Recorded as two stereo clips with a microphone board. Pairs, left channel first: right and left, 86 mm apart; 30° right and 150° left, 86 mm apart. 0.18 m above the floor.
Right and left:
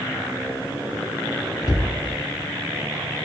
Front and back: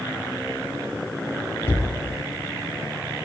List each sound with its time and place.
1.6 s a cupboard door: 80° right, 0.7 m